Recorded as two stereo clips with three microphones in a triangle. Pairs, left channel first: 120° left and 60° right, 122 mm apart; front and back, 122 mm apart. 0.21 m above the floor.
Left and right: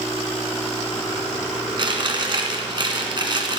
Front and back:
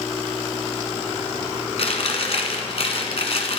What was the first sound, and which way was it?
Chewing, 20° right.